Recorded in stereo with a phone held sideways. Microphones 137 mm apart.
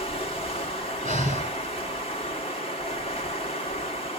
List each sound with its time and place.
0.0 s running water: 45° left (ahead or behind), 1.9 m
1.1 s breathing: 65° right (ahead or behind), 5 m